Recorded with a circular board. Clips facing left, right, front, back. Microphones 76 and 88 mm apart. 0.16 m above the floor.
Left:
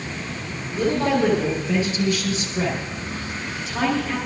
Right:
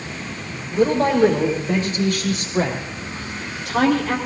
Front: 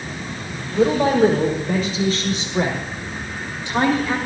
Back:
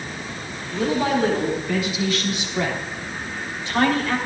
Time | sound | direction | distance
0.7 | a woman speaking | 45° right | 7 m